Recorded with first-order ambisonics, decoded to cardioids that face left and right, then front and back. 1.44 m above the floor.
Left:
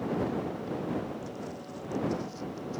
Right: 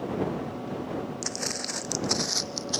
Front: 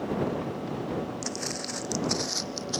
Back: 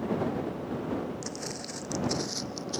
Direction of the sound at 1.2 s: 70° right.